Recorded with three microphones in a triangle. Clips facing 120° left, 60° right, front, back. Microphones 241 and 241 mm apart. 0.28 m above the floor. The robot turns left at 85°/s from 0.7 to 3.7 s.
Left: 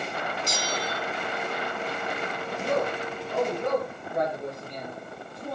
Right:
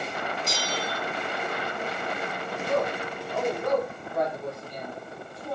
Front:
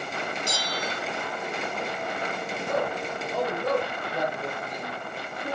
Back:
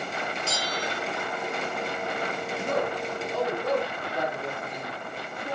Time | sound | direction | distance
0.5 | a bell | 70° right | 3 m
2.6 | a man speaking | 145° left | 7 m